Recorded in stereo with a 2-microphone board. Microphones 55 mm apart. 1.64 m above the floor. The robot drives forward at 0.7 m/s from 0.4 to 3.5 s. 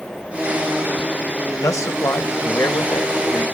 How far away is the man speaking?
About 2 m.